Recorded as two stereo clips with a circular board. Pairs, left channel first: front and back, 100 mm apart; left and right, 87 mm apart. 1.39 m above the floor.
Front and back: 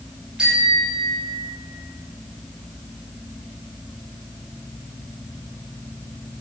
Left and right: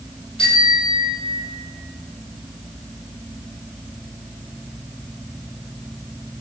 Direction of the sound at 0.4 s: 95° left.